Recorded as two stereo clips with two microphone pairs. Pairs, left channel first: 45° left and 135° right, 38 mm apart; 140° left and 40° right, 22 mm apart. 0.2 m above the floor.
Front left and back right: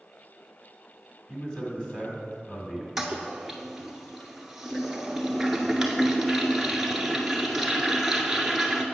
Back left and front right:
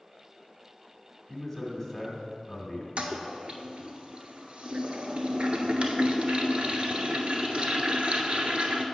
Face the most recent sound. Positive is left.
turn(degrees=-55)